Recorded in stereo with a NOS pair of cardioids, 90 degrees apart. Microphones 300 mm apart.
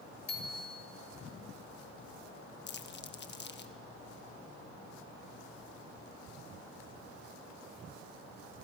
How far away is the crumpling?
About 1.6 m.